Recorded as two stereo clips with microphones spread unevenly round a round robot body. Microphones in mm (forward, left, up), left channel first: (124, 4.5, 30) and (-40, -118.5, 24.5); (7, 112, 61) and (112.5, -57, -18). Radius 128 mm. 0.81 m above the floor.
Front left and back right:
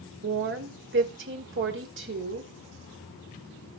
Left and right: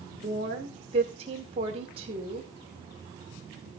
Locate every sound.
0.2 s a woman speaking: 120° right, 2.5 m